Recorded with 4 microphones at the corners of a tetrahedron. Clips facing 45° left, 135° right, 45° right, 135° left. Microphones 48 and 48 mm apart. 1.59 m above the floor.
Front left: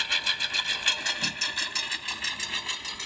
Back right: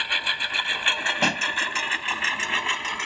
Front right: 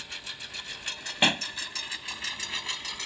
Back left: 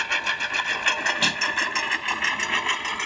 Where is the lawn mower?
150° left; by 3.0 s straight behind.